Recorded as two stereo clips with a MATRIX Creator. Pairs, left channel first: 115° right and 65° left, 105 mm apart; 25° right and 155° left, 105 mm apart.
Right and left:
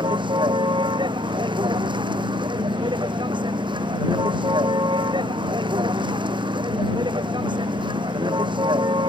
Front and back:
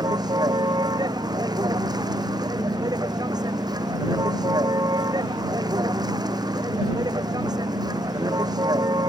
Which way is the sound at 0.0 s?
110° left.